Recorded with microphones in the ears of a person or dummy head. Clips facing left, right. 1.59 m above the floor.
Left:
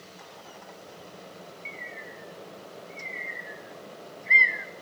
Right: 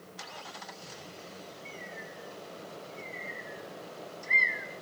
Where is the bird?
50° left (ahead or behind), 1.0 m.